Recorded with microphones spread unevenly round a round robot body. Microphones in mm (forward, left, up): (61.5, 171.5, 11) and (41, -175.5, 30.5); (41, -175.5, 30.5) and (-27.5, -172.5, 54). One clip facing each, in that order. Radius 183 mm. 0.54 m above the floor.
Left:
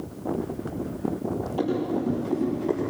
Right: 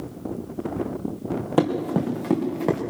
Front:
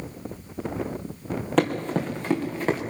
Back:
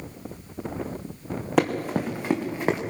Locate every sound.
1.6 s running footsteps: 100° right, 3.5 m; by 2.8 s 110° right, 4.5 m